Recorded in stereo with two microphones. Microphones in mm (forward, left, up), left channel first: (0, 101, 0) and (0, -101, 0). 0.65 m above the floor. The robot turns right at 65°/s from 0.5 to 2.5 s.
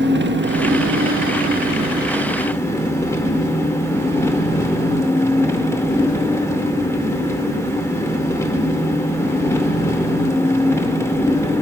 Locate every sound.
0.0 s an engine running: 115° right, 0.8 m; by 11.6 s 15° left, 0.8 m